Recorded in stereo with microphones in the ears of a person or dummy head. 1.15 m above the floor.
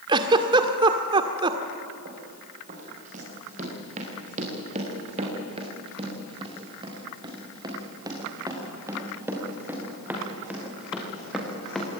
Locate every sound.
0.1 s a giggle: 25° right (ahead or behind), 1.7 m
2.0 s running footsteps: 45° right (ahead or behind), 7 m; by 11.9 s 5° left (ahead or behind), 6 m